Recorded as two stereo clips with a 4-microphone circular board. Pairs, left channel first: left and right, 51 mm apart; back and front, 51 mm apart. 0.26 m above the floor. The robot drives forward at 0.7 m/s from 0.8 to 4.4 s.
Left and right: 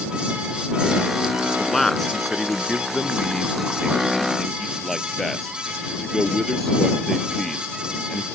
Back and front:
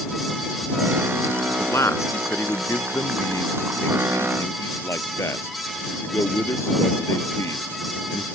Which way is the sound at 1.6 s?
175° left.